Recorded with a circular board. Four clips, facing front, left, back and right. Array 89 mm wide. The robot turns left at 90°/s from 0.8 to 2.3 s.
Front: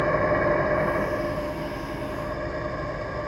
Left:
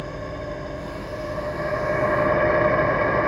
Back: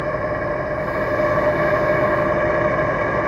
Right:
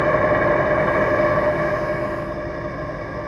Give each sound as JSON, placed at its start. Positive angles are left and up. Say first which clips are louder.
{"t": 0.0, "sound": "an engine running", "louder": "right 15 dB, even", "azimuth_deg": -85, "distance_m": 1.3}